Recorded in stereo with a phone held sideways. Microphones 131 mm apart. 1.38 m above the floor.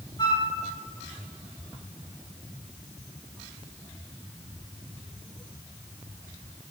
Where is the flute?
35° left (ahead or behind), 2.0 m.